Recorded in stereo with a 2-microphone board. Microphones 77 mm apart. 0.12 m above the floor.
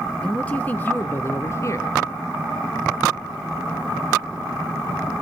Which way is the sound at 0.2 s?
15° left (ahead or behind).